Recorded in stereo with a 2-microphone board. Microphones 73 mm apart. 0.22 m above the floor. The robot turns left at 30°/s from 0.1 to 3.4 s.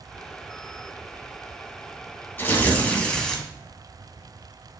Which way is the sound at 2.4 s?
40° left.